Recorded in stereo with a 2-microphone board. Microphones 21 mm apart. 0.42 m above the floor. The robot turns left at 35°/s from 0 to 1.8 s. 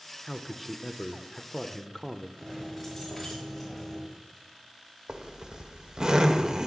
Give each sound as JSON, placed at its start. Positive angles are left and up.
{"t": 0.2, "sound": "a man speaking", "azimuth_deg": -150, "distance_m": 0.8}
{"t": 2.4, "sound": "keys jangling", "side_deg": 10, "distance_m": 6.5}
{"t": 5.1, "sound": "a zipper", "side_deg": -40, "distance_m": 1.3}